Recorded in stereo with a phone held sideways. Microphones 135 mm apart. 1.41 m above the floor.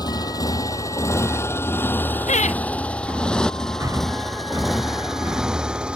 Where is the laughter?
60° left (ahead or behind).